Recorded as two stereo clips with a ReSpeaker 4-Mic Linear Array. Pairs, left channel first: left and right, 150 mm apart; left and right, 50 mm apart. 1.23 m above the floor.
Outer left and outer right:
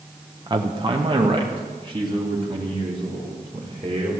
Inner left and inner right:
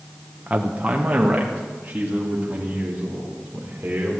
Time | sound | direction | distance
0.5 | a man speaking | 30° right (ahead or behind) | 1.1 m